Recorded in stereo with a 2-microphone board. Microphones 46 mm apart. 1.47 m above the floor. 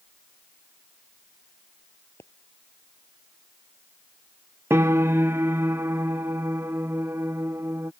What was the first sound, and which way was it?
A pop, 65° left (ahead or behind).